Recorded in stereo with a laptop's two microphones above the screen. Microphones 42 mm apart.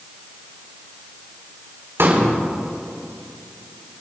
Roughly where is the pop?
Right.